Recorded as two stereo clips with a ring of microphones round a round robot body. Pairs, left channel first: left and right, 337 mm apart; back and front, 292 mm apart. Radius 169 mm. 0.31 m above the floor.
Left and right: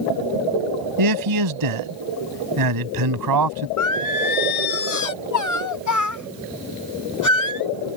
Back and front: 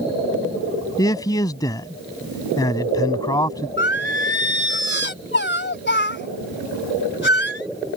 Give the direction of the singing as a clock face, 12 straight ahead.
8 o'clock.